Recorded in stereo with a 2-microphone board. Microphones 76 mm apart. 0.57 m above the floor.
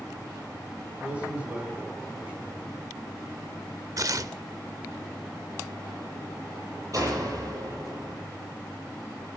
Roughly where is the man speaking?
Centre.